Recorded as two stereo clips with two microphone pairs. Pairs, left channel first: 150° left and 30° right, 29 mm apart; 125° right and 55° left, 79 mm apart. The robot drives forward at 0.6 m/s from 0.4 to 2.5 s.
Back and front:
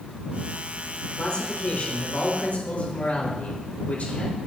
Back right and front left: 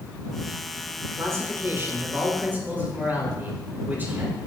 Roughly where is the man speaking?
Left.